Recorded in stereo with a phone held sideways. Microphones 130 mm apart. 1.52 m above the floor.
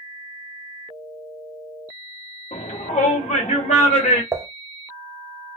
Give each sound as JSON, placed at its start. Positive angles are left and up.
{"t": 2.5, "sound": "a shout", "side_deg": 65, "distance_m": 0.7}
{"t": 4.3, "sound": "dishes clattering", "side_deg": -20, "distance_m": 0.5}